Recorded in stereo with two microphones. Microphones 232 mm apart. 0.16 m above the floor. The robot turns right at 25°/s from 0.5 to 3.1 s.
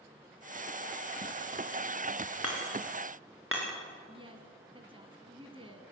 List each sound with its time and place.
2.4 s hammering: 80° right, 6.5 m; by 3.7 s 65° right (ahead or behind), 6.5 m
4.1 s a woman speaking: 20° right (ahead or behind), 1.8 m